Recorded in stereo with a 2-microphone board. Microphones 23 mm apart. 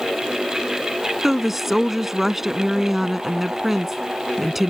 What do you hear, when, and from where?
1.2 s a woman speaking: 5° right (ahead or behind)